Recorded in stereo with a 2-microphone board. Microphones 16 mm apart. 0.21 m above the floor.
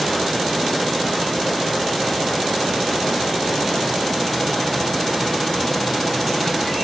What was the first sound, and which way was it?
Only background noise.